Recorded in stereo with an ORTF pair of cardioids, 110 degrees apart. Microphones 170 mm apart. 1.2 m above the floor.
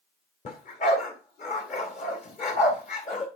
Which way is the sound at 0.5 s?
45° left.